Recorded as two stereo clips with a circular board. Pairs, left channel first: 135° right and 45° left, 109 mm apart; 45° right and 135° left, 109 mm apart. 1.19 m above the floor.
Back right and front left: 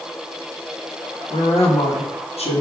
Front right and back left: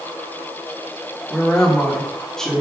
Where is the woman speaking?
130° right, 1.7 m.